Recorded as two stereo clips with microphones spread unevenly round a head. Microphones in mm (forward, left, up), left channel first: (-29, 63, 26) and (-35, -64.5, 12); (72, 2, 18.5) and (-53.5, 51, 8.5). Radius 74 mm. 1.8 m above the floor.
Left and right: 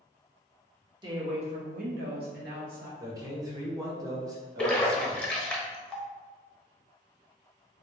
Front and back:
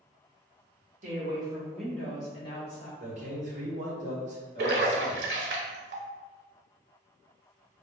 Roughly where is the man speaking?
Behind right.